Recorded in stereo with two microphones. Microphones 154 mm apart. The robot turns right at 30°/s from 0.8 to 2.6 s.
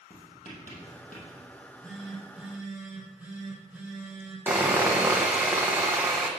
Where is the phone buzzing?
160° left, 3 m; by 4.4 s 165° right, 3 m.